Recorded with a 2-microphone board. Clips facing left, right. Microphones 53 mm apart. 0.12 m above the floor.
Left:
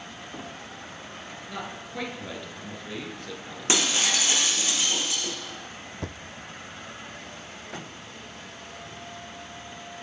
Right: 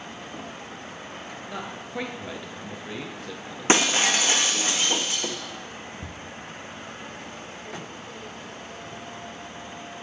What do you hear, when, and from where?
1.5 s a man speaking: 15° right (ahead or behind), 2 m
3.7 s breaking glass: 35° right (ahead or behind), 1.2 m
6.0 s a thud: 75° left (ahead or behind), 1.2 m